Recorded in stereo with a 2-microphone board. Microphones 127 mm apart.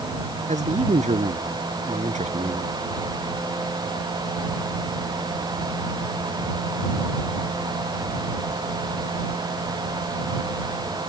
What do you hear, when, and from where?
0.5 s a man speaking: 70° right (ahead or behind)